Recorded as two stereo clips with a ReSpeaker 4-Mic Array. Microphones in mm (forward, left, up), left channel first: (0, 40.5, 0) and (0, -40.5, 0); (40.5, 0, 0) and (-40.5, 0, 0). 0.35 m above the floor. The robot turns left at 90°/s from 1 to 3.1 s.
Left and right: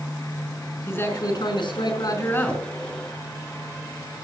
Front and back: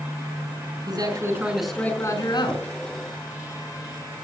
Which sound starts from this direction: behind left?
A man speaking, at 0.9 s.